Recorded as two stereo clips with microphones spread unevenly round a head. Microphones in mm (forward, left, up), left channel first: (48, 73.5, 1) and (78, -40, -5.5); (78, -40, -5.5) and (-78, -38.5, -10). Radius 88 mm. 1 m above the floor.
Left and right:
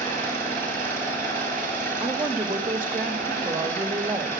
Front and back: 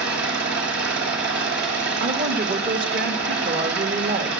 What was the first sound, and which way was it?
An engine running, straight behind.